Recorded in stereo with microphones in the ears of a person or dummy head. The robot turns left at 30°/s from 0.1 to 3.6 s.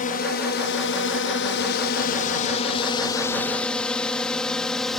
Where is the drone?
50° left (ahead or behind); by 5.0 s centre (ahead or behind).